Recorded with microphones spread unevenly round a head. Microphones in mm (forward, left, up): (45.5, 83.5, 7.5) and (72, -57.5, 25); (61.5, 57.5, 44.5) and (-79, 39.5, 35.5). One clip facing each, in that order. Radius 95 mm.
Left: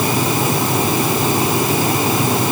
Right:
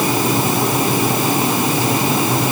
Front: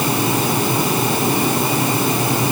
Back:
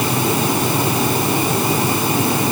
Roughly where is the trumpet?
I don't hear a trumpet.